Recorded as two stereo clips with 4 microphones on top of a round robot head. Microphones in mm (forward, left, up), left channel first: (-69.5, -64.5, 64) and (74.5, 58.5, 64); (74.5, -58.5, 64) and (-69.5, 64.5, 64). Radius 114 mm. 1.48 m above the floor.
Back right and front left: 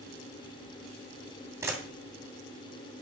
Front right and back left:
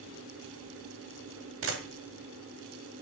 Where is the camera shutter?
115° left, 2 m.